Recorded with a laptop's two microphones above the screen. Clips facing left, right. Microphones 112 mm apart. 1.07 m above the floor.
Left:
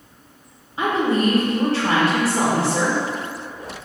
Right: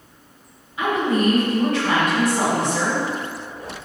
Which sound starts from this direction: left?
A woman speaking, at 0.8 s.